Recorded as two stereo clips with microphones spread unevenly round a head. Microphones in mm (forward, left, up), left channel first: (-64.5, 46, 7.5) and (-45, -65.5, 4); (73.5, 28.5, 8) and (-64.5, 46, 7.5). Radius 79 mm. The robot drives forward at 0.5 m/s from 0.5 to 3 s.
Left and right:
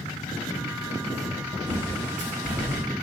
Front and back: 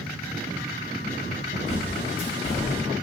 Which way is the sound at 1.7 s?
45° right.